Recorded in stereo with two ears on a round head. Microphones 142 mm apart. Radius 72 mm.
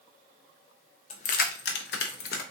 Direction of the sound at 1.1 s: 40° left (ahead or behind).